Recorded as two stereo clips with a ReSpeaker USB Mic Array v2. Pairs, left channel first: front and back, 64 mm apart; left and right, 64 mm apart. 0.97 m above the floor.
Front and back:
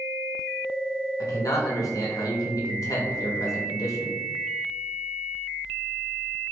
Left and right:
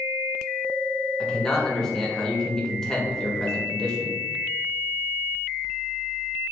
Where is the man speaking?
10° left, 0.8 m.